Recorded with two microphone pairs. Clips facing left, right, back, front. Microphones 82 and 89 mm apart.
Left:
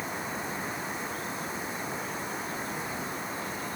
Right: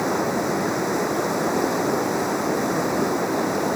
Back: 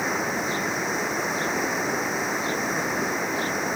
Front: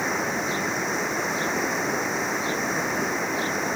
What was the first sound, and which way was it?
Running water, 95° right.